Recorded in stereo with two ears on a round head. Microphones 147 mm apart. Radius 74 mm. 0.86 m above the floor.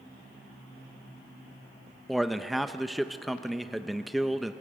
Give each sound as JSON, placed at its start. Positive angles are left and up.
{"t": 2.1, "sound": "a man speaking", "side_deg": 0, "distance_m": 0.6}